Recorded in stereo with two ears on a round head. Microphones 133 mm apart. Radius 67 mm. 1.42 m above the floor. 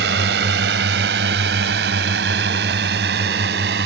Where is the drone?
85° right.